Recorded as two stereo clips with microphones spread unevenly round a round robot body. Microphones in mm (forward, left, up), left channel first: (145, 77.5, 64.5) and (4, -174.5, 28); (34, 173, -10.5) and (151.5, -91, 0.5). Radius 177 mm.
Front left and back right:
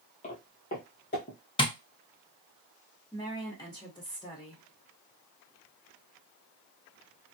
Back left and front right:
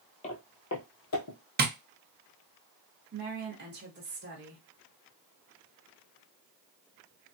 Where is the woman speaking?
20° right, 1.2 m.